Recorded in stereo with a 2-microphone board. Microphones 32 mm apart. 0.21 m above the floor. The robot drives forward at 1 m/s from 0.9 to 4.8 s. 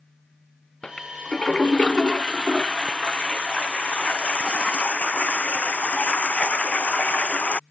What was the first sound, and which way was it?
A toilet flushing, 25° left (ahead or behind).